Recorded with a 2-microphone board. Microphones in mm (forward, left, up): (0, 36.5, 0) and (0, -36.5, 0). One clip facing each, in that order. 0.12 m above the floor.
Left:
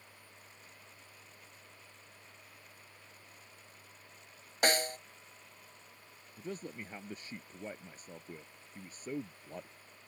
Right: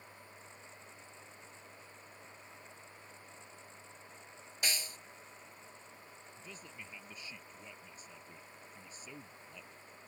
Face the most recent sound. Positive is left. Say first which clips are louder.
# left 11 dB
turn(degrees=45)  # may be behind; listen again after turning